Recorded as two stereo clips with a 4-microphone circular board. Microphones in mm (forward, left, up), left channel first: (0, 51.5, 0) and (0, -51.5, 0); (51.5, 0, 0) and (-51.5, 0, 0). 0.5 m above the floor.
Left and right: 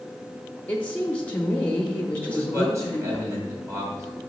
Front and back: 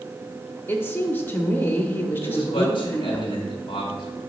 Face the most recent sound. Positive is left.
turn(degrees=-30)